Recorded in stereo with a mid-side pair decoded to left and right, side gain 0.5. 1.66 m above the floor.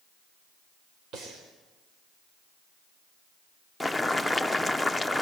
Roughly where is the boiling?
Ahead.